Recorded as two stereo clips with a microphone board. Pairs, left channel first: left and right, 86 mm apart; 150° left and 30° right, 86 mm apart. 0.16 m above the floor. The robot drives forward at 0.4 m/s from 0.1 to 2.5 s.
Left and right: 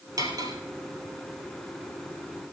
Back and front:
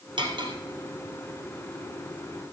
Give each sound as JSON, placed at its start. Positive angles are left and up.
{"t": 0.2, "sound": "cutlery clinking", "azimuth_deg": -45, "distance_m": 2.5}